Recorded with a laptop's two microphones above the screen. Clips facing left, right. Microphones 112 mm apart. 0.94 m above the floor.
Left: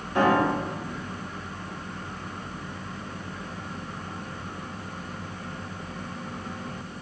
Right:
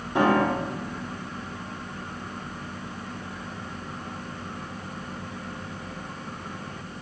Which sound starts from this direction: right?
A piano, at 0.1 s.